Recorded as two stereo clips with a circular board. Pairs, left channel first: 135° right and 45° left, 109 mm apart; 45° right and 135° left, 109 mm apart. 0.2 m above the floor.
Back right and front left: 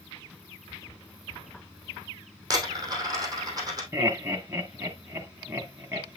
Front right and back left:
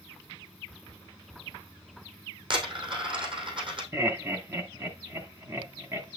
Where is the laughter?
85° left, 1.2 m.